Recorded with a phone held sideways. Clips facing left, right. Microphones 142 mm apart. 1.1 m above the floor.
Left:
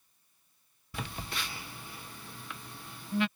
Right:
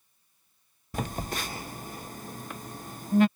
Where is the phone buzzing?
45° right (ahead or behind).